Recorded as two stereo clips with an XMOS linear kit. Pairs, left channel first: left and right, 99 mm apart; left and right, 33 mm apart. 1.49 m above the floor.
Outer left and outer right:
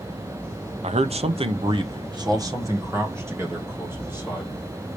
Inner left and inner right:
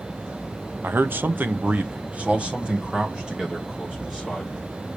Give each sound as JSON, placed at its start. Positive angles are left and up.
{"t": 0.8, "sound": "a man speaking", "side_deg": -80, "distance_m": 0.8}